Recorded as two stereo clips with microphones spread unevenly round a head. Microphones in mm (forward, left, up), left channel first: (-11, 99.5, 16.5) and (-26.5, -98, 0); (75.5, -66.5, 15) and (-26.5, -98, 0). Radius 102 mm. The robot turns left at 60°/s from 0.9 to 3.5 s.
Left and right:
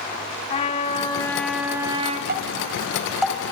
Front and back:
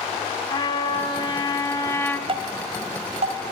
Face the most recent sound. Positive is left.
turn(degrees=155)